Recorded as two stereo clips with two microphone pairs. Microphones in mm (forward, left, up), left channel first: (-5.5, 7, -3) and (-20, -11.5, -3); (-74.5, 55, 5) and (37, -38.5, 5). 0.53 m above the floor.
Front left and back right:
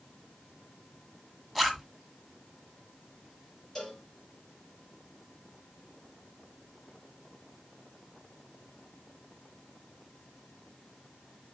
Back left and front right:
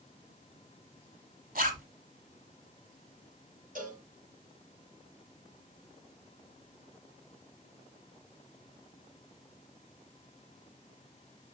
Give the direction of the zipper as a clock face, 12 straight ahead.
1 o'clock.